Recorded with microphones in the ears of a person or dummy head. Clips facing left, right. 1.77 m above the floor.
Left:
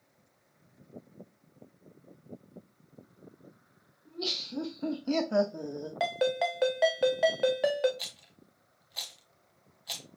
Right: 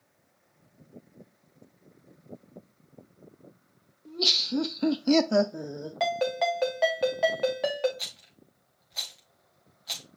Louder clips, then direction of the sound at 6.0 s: Right 2 dB; 10° left (ahead or behind).